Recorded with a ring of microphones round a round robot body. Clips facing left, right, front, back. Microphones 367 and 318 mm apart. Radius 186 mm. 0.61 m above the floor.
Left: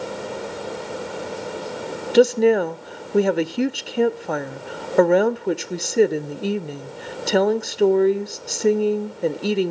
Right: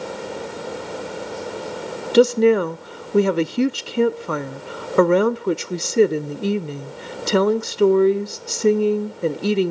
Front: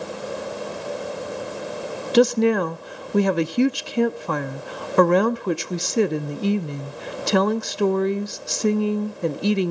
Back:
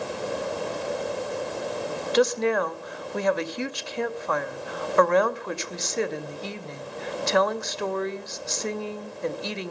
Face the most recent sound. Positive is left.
turn(degrees=-15)